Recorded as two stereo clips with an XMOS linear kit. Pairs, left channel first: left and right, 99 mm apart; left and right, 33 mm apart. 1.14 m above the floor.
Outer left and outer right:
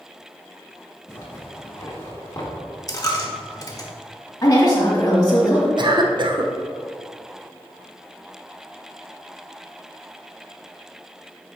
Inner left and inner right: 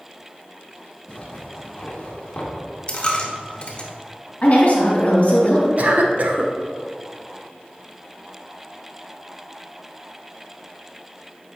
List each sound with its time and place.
1.1 s a zipper: 30° left (ahead or behind), 1.6 m
2.9 s a dropped coin: 35° left (ahead or behind), 1.0 m
4.4 s a woman speaking: 40° left (ahead or behind), 2.5 m
5.8 s a cough: 50° right (ahead or behind), 0.8 m